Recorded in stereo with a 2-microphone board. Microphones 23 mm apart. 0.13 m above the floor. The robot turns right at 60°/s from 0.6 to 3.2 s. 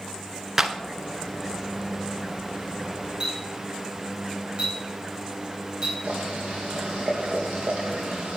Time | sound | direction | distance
0.6 | a clap | 15° right (ahead or behind) | 1.4 m
3.2 | a clink | 35° right (ahead or behind) | 6.5 m
6.0 | boiling | 85° right | 5.5 m